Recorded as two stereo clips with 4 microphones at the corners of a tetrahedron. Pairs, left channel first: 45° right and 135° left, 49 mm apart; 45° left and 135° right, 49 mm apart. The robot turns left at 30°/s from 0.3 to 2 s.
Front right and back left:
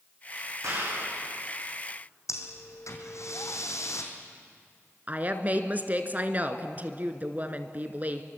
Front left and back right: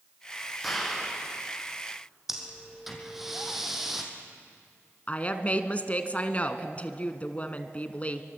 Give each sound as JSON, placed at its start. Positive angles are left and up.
{"t": 0.6, "sound": "a clap", "azimuth_deg": 135, "distance_m": 8.5}
{"t": 2.3, "sound": "breathing", "azimuth_deg": -55, "distance_m": 3.0}
{"t": 5.1, "sound": "a woman speaking", "azimuth_deg": 95, "distance_m": 1.7}